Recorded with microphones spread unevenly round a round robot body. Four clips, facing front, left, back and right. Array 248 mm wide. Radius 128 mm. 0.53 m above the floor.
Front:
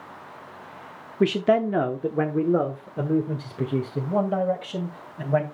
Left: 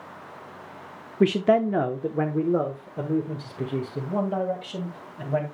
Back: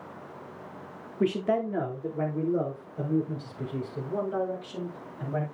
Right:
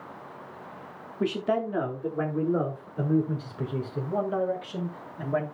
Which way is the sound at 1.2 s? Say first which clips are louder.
Left 7 dB, front 6 dB; 45° left.